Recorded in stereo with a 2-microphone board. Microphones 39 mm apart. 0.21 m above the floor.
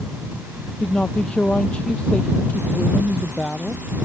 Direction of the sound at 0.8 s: 25° left (ahead or behind).